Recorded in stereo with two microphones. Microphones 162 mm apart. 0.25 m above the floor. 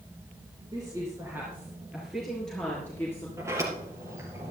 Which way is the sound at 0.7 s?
25° right (ahead or behind).